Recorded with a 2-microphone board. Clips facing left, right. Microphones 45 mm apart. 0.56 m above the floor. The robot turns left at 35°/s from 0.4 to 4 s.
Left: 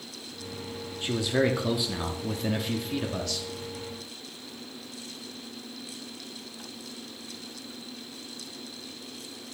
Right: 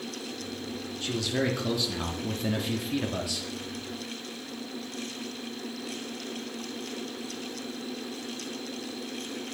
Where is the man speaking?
20° left (ahead or behind), 0.7 m; by 3.5 s 10° right (ahead or behind), 0.7 m.